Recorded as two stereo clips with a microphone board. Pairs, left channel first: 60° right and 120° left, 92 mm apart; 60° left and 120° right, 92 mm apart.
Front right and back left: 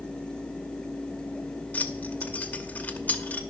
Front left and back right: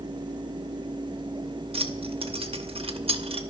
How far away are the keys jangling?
About 0.7 m.